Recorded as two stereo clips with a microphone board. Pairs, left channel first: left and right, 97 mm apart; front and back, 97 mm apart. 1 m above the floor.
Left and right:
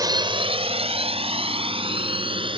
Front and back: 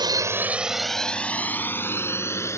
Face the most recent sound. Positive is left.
turn(degrees=-60)